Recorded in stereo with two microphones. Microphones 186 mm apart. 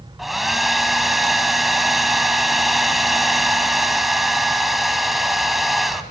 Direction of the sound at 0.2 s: Centre (ahead or behind).